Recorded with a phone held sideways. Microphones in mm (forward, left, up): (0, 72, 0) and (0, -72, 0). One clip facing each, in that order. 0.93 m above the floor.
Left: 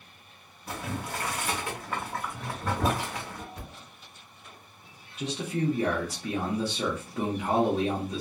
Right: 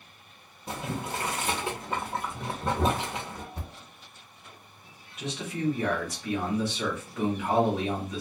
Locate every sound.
0.7 s boiling: 20° right (ahead or behind), 0.7 m
3.5 s a thud: 30° right (ahead or behind), 0.8 m
5.2 s a man speaking: 35° left (ahead or behind), 0.9 m